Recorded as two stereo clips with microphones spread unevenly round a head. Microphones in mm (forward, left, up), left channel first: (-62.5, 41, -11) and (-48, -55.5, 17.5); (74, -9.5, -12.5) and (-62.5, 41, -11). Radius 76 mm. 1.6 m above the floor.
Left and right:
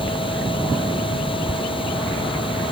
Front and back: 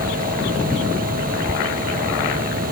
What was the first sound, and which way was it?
A machine running, 130° left.